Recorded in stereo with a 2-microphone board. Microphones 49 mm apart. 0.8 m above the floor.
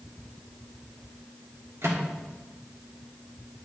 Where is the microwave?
60° right (ahead or behind), 1.6 m.